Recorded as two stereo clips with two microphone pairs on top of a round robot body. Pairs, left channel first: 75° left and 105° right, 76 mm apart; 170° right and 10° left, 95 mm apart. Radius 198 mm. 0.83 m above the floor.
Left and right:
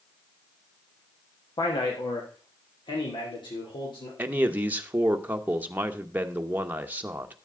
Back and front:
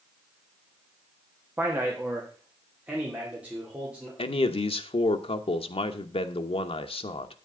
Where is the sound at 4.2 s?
165° right, 1.1 m.